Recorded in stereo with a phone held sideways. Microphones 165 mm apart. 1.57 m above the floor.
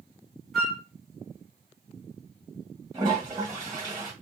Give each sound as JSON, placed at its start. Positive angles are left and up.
{"t": 0.5, "sound": "a flute", "side_deg": 0, "distance_m": 0.8}
{"t": 2.9, "sound": "a toilet flushing", "side_deg": -20, "distance_m": 1.5}